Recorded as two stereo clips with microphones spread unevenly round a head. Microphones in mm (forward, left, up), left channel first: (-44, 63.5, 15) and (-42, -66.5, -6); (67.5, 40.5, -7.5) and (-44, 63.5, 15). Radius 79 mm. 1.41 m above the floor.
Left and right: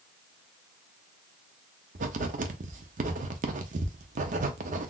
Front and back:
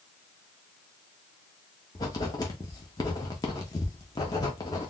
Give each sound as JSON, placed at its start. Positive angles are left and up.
{"t": 1.9, "sound": "writing", "azimuth_deg": -70, "distance_m": 0.5}